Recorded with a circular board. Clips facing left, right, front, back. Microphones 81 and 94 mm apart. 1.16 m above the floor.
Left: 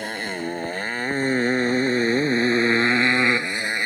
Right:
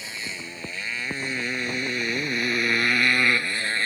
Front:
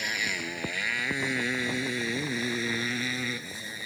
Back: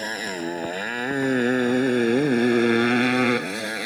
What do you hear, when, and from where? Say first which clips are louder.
0.0 s a motorcycle: left 9 dB, back 5 dB; 125° left; by 3.9 s 165° left